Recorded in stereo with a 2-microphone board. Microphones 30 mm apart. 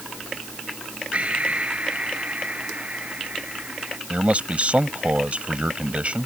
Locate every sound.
1.1 s breathing: 45° right (ahead or behind)
4.1 s a man speaking: 45° right (ahead or behind)